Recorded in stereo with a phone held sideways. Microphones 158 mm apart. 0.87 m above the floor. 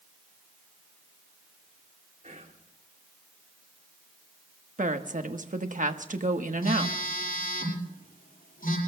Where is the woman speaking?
55° right (ahead or behind), 1.2 m.